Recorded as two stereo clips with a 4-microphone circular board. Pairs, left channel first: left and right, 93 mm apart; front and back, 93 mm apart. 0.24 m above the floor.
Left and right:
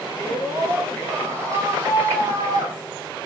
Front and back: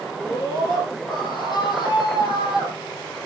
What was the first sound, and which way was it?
A scream, 30° right.